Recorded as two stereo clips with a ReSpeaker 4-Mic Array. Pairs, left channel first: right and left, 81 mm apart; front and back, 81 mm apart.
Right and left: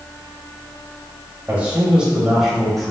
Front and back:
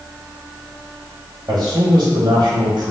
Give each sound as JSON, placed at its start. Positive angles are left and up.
{"t": 1.5, "sound": "a man speaking", "azimuth_deg": 155, "distance_m": 1.6}